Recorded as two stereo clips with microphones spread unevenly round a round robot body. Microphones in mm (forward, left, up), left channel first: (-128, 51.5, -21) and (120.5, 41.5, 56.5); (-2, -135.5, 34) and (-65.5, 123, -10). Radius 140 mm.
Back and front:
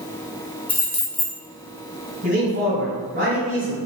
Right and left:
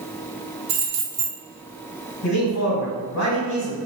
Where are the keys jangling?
115° left, 0.8 m.